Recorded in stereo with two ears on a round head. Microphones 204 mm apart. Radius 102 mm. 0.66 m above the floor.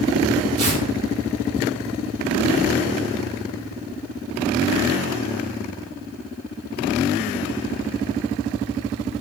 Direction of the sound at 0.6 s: 35° right (ahead or behind).